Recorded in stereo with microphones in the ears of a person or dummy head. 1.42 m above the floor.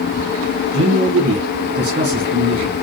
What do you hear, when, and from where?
0.7 s a man speaking: 50° right (ahead or behind), 1.3 m